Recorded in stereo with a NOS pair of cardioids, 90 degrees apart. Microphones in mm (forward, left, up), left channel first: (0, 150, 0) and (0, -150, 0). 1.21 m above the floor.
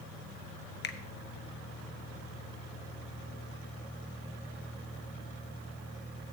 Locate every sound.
0.8 s a finger snap: 35° left, 1.1 m